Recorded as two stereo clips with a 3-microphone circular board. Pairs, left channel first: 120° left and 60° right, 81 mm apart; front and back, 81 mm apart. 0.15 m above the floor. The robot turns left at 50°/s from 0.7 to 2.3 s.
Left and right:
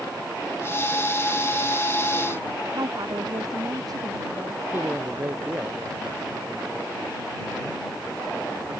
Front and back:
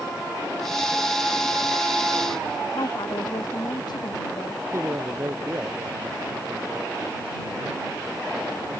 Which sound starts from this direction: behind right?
A man speaking, at 4.7 s.